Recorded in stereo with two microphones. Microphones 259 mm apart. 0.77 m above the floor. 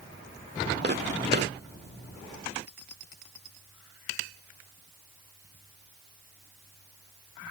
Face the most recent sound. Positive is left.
turn(degrees=-45)  # may be behind; listen again after turning